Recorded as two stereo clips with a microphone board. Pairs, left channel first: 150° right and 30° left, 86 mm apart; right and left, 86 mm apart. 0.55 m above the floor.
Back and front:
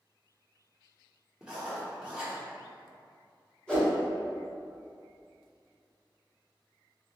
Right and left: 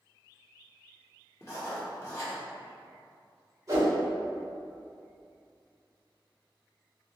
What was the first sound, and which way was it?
Writing, 45° right.